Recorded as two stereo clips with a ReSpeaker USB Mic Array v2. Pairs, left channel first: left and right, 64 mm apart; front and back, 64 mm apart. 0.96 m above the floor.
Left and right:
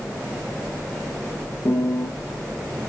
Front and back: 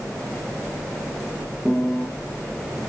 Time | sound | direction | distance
1.6 | a piano | 75° left | 1.8 m